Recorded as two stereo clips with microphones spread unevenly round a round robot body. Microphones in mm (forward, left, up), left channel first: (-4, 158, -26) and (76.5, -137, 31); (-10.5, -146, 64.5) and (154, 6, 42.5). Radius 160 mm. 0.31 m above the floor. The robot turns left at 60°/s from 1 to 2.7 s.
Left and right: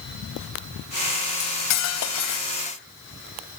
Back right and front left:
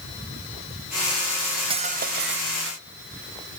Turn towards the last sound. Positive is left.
turn(degrees=45)